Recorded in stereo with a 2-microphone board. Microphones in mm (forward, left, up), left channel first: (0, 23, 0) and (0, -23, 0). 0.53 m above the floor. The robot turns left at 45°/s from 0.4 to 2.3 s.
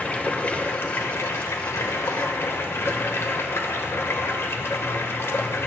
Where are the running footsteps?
I don't hear running footsteps.